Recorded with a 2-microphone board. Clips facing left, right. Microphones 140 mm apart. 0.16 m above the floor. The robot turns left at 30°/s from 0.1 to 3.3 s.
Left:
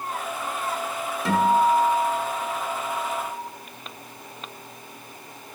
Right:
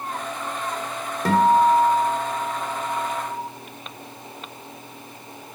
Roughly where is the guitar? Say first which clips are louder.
Right 3 dB; right.